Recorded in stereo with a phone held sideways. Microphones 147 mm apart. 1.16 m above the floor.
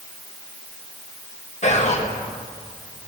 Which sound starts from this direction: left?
Whispering, at 1.6 s.